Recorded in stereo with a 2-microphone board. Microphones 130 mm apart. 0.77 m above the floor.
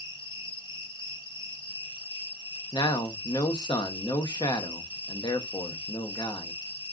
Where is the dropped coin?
No dropped coin in this recording.